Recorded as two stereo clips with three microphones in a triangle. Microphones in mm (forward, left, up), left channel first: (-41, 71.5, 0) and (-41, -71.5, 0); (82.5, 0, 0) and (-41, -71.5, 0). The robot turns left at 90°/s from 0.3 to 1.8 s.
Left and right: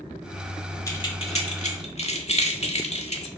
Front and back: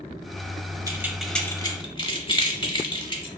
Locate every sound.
0.9 s keys jangling: 155° left, 0.8 m; by 3.3 s 70° left, 0.8 m